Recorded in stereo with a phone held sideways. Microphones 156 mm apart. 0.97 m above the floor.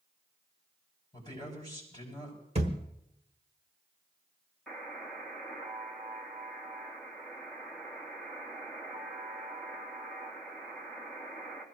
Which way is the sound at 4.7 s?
5° left (ahead or behind).